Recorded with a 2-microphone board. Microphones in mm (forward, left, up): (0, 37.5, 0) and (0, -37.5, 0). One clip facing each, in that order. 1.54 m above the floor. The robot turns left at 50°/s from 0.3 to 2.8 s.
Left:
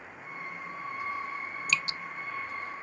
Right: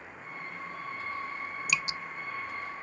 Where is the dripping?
10° right (ahead or behind); by 2.0 s 20° right (ahead or behind).